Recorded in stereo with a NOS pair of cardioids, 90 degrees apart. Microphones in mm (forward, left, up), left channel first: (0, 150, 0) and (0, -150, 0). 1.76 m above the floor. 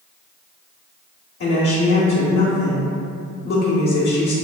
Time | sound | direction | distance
1.4 | a woman speaking | 55° left | 1.2 m